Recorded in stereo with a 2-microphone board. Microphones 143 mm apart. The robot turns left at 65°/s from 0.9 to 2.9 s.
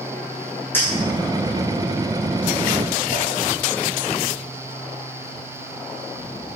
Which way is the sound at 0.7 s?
15° left (ahead or behind).